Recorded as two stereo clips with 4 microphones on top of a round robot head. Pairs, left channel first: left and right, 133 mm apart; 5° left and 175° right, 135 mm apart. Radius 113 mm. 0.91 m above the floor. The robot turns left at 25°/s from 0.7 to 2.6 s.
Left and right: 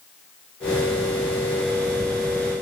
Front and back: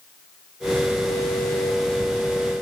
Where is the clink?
No clink in this recording.